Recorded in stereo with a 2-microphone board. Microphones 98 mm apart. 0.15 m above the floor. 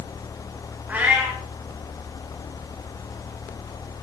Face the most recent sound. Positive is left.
turn(degrees=-15)  # may be behind; listen again after turning